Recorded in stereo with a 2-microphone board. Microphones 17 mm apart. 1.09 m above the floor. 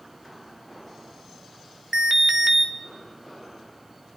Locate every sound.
1.9 s an alarm: 25° right (ahead or behind), 1.3 m